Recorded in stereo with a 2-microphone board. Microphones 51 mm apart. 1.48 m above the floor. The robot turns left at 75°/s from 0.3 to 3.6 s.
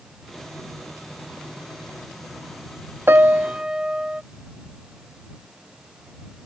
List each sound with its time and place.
3.1 s a piano: 120° right; by 4.2 s 160° right